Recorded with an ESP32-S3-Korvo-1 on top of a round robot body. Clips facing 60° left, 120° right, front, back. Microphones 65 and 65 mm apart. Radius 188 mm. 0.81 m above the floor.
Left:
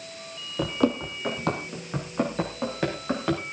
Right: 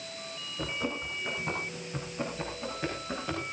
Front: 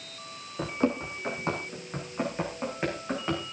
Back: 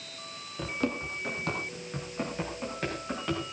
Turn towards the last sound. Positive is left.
turn(degrees=70)